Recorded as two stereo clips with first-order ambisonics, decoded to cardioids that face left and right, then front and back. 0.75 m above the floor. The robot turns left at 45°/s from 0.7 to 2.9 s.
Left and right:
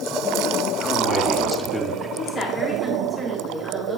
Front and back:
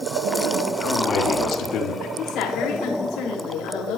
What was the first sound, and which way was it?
A man speaking, 50° left.